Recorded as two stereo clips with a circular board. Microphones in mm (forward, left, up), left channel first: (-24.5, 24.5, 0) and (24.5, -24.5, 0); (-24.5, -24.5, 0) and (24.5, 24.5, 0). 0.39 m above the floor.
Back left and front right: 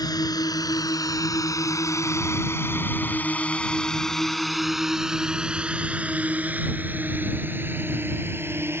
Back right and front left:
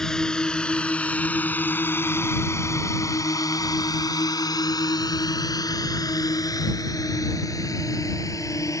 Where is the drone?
145° left; by 8.8 s 100° right.